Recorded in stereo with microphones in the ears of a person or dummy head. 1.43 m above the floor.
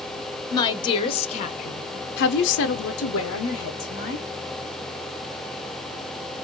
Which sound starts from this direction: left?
A woman speaking, at 0.5 s.